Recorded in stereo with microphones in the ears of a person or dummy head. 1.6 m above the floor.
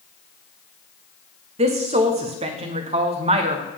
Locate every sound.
1.6 s a woman speaking: 30° right (ahead or behind), 0.9 m